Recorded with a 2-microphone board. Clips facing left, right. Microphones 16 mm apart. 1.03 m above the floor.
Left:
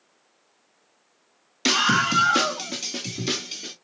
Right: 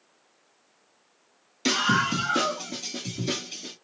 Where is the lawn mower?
I don't hear a lawn mower.